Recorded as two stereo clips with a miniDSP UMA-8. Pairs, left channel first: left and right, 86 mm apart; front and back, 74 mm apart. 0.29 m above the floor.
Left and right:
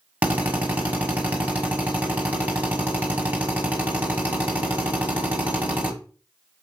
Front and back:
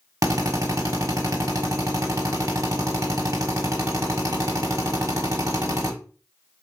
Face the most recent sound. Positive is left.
turn(degrees=-160)